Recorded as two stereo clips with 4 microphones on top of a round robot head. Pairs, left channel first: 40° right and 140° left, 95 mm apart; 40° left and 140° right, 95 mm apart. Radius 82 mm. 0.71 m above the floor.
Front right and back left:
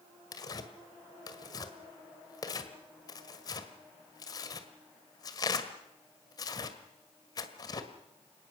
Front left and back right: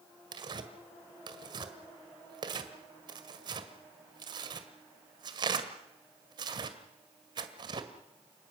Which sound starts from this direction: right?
Tearing paper, at 0.3 s.